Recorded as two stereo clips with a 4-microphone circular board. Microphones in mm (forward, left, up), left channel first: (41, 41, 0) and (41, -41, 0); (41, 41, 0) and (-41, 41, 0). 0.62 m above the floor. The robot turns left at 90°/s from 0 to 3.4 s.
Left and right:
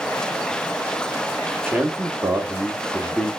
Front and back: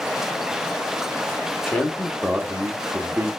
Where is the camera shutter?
I don't hear a camera shutter.